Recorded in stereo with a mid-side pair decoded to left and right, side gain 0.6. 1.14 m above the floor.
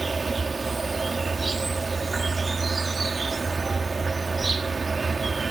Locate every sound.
0.0 s an insect: 20° right